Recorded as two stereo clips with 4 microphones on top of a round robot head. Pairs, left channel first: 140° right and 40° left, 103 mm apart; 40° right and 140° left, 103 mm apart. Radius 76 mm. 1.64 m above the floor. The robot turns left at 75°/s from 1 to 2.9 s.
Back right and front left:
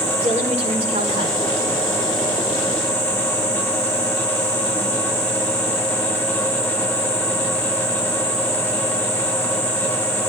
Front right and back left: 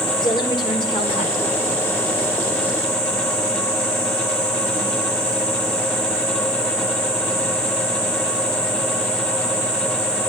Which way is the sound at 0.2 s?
10° left.